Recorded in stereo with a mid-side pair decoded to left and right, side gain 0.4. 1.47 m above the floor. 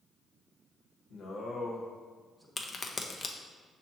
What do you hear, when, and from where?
1.1 s a man speaking: 65° left, 1.3 m; by 2.5 s straight ahead, 1.3 m
2.6 s a crack: 40° left, 0.6 m